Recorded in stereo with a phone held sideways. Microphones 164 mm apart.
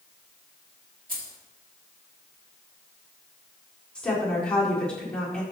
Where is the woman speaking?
5° left (ahead or behind), 4 m.